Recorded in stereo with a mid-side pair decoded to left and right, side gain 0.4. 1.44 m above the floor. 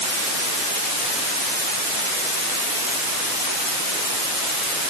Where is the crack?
I don't hear a crack.